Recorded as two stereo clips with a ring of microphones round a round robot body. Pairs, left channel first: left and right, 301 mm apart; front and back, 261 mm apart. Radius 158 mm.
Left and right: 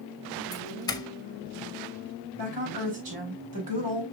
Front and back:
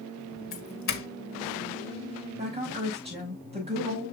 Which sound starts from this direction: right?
A woman speaking, at 2.4 s.